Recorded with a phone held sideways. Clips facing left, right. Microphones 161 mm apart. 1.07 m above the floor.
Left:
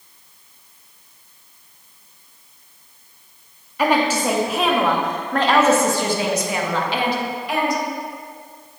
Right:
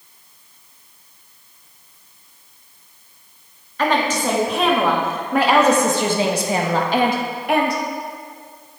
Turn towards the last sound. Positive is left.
turn(degrees=-60)  # may be behind; listen again after turning